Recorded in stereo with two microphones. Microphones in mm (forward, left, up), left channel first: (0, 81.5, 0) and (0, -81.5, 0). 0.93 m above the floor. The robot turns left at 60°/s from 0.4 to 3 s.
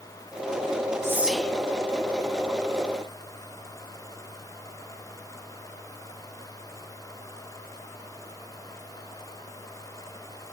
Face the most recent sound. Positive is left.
turn(degrees=80)